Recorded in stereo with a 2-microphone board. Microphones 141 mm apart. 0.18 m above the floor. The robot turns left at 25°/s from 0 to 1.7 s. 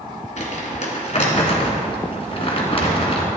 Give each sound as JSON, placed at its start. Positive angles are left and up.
{"t": 0.4, "sound": "crumpling", "side_deg": 55, "distance_m": 2.0}